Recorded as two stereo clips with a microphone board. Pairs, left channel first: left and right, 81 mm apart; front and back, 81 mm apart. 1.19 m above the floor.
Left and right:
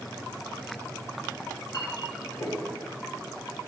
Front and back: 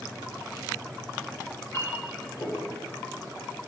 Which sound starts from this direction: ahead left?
A clink, at 1.4 s.